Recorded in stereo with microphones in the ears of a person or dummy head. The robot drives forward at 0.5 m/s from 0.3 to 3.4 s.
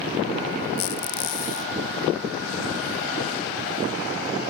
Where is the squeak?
60° left (ahead or behind), 0.8 m; by 1.7 s 40° left (ahead or behind), 1.0 m.